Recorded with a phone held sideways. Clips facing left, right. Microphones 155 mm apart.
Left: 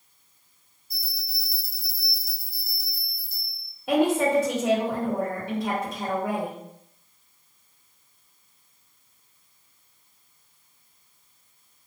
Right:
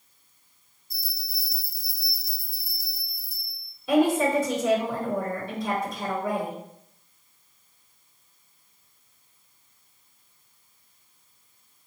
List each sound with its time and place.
0.9 s a bell: 65° left (ahead or behind), 1.0 m
3.9 s a woman speaking: 65° left (ahead or behind), 1.2 m